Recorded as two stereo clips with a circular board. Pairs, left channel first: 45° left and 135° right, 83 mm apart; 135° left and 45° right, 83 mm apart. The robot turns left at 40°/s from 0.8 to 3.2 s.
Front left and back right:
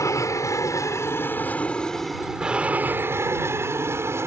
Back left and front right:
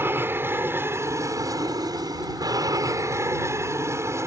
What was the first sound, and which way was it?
An aircraft, 10° left.